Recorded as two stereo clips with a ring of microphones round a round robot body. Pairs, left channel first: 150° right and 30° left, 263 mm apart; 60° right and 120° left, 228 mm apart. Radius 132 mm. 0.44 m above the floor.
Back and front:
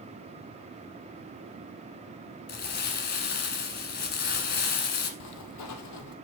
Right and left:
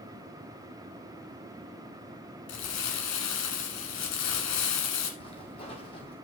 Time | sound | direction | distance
2.5 | crumpling | 95° right | 1.3 m
5.2 | footsteps | 130° right | 1.0 m